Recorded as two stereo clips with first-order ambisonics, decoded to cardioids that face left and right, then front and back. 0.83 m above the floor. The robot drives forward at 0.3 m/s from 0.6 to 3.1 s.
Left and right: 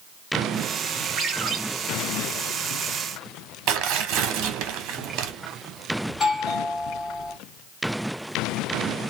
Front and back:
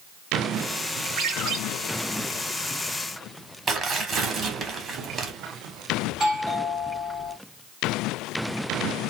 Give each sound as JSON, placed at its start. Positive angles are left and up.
{"t": 1.2, "sound": "a ringtone", "azimuth_deg": -145, "distance_m": 1.6}
{"t": 3.7, "sound": "tearing paper", "azimuth_deg": -120, "distance_m": 0.8}
{"t": 6.1, "sound": "a doorbell", "azimuth_deg": 140, "distance_m": 1.8}